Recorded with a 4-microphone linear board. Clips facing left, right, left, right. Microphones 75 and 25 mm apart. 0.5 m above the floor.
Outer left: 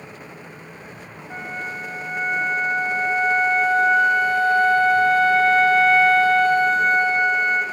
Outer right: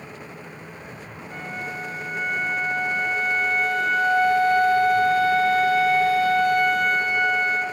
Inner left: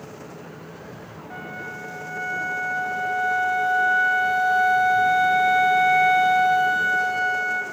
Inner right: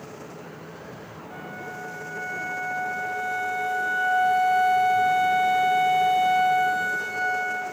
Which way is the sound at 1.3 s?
30° left (ahead or behind).